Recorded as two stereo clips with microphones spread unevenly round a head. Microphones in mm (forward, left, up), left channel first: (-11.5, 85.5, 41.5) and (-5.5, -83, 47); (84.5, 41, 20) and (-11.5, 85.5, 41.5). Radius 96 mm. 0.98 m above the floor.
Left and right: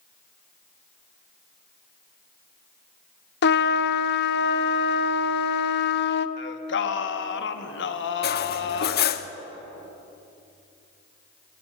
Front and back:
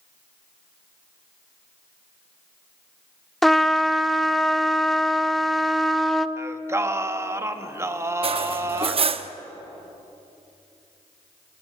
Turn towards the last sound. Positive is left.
turn(degrees=125)